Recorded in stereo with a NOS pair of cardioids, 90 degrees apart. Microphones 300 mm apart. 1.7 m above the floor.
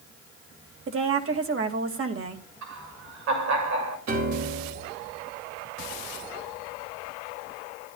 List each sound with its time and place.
0.9 s a woman speaking: 45° right, 2.5 m
2.6 s laughter: 65° right, 6.5 m
4.1 s a piano: 65° right, 4 m